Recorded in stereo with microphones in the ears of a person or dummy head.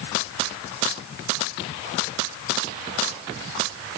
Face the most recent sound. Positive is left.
No sound to turn to.